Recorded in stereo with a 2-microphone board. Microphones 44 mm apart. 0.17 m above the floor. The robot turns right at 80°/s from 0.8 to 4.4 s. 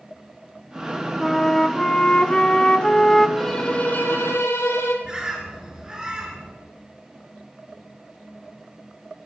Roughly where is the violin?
Ahead.